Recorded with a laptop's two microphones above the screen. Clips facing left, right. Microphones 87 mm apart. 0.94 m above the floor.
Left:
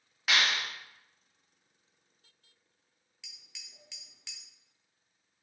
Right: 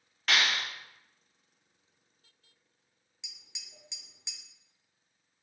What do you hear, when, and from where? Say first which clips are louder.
0.3 s a clap: even; 5° left (ahead or behind), 1.4 m
3.2 s tapping: right 1 dB; 20° right (ahead or behind), 0.6 m